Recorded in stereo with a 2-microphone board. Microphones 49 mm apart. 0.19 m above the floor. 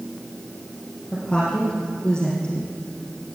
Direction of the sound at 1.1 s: 20° left (ahead or behind).